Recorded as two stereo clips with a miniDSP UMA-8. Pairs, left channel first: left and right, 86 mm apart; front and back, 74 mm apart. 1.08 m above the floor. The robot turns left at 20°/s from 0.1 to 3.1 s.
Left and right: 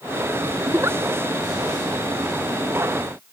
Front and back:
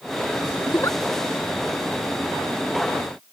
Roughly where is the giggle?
Ahead right.